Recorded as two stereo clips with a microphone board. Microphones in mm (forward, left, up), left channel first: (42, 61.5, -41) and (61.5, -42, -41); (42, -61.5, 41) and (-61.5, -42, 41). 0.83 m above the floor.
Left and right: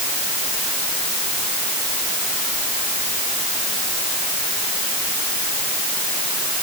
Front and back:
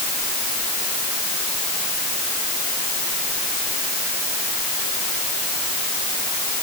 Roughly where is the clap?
No clap in this recording.